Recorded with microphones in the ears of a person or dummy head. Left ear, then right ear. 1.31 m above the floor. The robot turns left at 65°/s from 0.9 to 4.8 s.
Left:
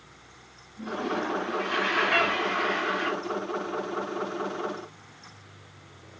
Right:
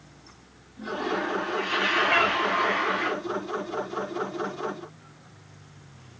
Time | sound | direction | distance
0.8 | a toilet flushing | 40° right | 2.5 m
2.1 | a cat meowing | 5° right (ahead or behind) | 0.6 m